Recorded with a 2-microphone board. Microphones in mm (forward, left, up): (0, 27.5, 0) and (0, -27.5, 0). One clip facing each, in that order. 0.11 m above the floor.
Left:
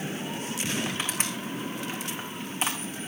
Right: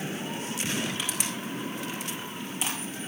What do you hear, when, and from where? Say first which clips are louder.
0.8 s crushing: left 1 dB; 35° left (ahead or behind), 5 m